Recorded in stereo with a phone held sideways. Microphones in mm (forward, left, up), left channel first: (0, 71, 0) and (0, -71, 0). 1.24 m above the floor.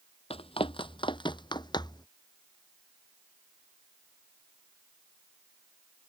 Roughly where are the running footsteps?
Left.